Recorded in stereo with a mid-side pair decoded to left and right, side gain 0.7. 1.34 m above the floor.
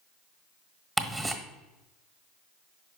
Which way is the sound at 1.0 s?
10° right.